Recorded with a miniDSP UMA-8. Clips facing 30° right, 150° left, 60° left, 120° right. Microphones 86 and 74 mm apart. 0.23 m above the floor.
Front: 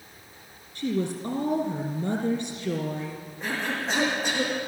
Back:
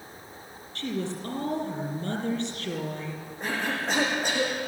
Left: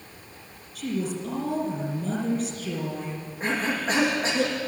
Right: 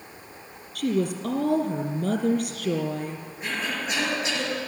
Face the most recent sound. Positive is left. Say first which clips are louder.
# even, left 4 dB
turn(degrees=115)